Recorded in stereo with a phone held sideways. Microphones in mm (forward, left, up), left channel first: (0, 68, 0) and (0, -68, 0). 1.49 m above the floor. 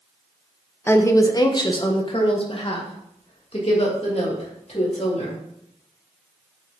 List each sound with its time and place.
0.9 s a woman speaking: 15° left (ahead or behind), 0.9 m; by 5.4 s 50° left (ahead or behind), 3.5 m